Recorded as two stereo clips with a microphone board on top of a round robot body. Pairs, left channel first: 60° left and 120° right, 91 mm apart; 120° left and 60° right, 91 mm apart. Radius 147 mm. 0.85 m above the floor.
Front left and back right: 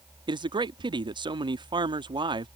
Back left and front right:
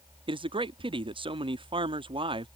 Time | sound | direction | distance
0.3 | a man speaking | 85° right | ?